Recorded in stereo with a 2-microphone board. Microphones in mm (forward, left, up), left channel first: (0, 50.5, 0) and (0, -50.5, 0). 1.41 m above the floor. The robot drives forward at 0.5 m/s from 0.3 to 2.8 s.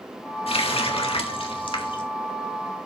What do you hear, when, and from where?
0.5 s a running tap: 70° left (ahead or behind), 1.7 m; by 2.0 s 55° left (ahead or behind), 1.9 m